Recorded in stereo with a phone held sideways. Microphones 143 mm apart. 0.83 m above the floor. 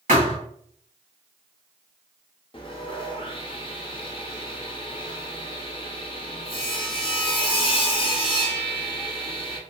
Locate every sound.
0.1 s a thud: 70° right (ahead or behind), 1.6 m
2.5 s sawing: 40° left (ahead or behind), 0.6 m